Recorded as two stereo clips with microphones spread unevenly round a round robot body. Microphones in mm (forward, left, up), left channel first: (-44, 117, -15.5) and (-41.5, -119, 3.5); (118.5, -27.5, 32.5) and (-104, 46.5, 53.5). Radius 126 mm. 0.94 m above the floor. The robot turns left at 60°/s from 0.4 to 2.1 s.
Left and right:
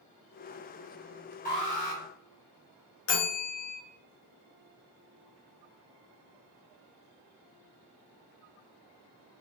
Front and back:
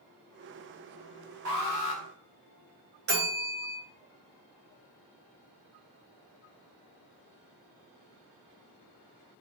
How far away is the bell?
About 1.8 m.